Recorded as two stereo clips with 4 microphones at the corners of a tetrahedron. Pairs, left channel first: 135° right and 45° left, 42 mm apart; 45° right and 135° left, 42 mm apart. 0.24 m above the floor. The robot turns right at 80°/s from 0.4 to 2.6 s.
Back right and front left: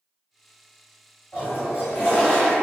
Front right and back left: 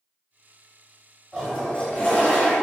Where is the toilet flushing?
140° right, 1.8 m; by 2.5 s 45° right, 1.8 m.